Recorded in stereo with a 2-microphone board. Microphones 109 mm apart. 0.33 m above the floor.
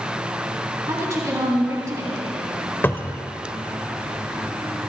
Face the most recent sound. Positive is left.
turn(degrees=20)  # may be behind; listen again after turning